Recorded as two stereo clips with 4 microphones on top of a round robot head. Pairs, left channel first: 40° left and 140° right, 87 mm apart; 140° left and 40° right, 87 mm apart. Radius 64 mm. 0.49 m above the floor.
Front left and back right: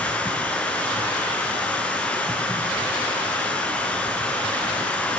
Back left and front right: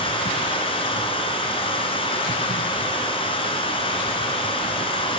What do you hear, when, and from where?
0.0 s running water: 115° left, 3 m